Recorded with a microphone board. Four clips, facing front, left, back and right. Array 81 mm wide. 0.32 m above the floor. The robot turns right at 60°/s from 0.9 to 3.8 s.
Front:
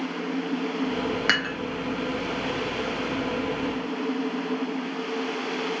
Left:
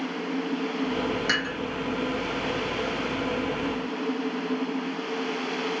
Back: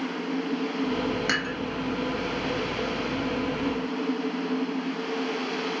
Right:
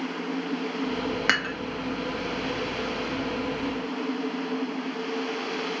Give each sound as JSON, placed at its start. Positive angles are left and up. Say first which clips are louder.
{"t": 1.3, "sound": "dishes clattering", "louder": "right 2 dB, front 2 dB", "azimuth_deg": -55, "distance_m": 1.0}